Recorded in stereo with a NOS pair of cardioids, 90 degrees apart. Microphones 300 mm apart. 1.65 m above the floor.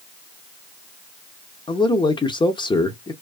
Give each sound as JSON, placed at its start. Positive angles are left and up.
{"t": 1.7, "sound": "a man speaking", "azimuth_deg": 15, "distance_m": 0.6}